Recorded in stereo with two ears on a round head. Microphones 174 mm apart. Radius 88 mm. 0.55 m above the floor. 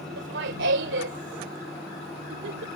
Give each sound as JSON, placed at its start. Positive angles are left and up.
{"t": 0.2, "sound": "laughter", "side_deg": -65}